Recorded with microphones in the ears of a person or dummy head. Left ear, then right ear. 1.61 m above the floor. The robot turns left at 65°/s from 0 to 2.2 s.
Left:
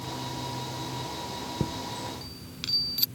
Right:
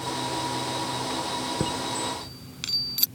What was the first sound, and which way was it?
A chime, 55° right (ahead or behind).